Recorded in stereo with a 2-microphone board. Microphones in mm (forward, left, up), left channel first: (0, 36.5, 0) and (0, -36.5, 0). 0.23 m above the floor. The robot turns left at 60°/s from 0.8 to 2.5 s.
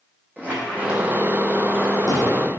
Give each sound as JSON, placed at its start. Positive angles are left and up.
{"t": 0.4, "sound": "a squeak", "side_deg": -20, "distance_m": 0.9}